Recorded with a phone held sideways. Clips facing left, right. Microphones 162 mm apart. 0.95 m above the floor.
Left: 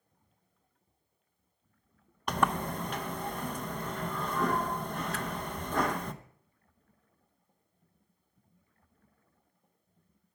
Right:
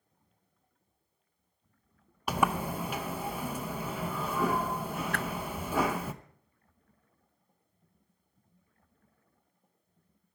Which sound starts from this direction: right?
A whoosh, at 5.1 s.